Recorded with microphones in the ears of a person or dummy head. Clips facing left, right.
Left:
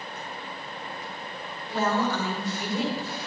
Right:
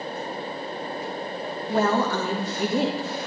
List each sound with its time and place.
1.7 s a woman speaking: 40° right (ahead or behind), 1.6 m